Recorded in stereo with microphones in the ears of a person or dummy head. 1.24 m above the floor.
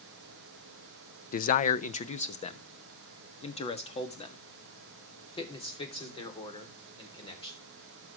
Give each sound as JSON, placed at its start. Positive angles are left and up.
{"t": 1.3, "sound": "a man speaking", "side_deg": 45, "distance_m": 0.5}